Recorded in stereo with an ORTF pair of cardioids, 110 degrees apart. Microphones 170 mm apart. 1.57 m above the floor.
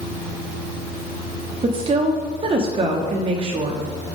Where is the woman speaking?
35° right, 0.8 m.